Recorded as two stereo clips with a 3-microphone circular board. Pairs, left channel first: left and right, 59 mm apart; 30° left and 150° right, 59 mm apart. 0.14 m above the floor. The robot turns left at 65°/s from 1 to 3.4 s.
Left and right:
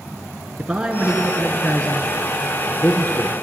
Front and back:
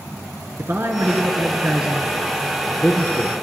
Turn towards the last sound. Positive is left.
turn(degrees=40)